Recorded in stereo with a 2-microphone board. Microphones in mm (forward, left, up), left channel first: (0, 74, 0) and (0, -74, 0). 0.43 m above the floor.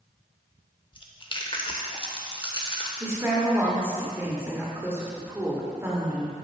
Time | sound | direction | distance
0.9 | chewing | 35° left (ahead or behind) | 0.7 m
3.0 | a woman speaking | 15° right (ahead or behind) | 1.4 m